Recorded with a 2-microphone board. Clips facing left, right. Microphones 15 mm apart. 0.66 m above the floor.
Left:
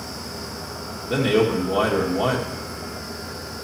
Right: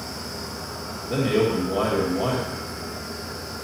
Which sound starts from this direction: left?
A man speaking, at 1.1 s.